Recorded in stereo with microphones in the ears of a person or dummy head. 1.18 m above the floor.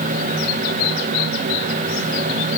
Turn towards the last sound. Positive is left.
No sound to turn to.